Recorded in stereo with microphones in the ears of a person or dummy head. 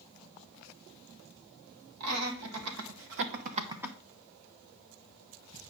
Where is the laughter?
80° right, 2 m; by 4.0 s 5° left (ahead or behind), 0.7 m.